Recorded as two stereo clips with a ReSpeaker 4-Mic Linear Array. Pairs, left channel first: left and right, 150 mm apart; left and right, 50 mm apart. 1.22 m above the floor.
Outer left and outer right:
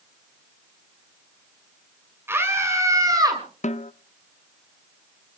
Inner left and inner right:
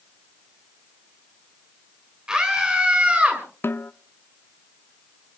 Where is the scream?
15° right (ahead or behind), 5.5 m; by 3.4 s 25° right (ahead or behind), 5.5 m.